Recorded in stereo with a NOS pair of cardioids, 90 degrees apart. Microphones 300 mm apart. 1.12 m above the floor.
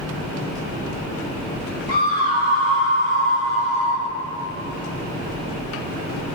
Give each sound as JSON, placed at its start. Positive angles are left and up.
{"t": 1.9, "sound": "a scream", "azimuth_deg": 60, "distance_m": 3.0}